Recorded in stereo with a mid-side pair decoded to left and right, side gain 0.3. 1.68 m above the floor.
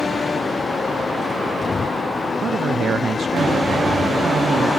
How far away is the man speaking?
About 0.6 m.